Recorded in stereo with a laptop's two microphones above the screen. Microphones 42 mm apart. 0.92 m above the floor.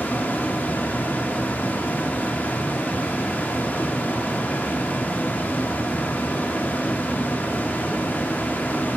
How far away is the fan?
About 0.8 m.